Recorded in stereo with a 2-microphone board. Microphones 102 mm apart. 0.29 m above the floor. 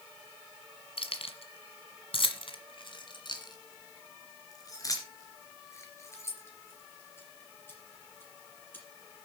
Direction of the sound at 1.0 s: 65° left (ahead or behind).